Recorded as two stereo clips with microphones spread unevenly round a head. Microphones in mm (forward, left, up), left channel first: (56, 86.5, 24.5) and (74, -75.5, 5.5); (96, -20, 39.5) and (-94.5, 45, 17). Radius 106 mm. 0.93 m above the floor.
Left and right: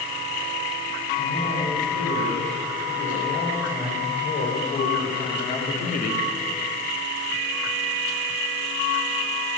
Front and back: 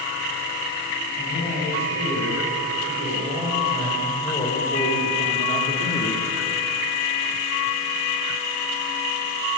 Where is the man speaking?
55° left, 6 m; by 6.3 s 45° left, 1.3 m.